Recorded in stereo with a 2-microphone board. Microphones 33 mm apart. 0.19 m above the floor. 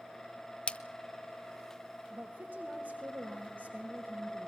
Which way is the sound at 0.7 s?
40° left (ahead or behind).